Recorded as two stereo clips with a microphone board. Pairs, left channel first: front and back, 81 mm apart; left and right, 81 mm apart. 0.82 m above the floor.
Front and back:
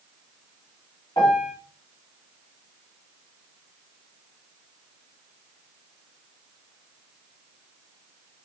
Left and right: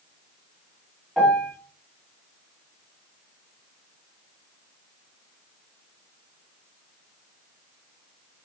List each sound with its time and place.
1.2 s a piano: straight ahead, 1.7 m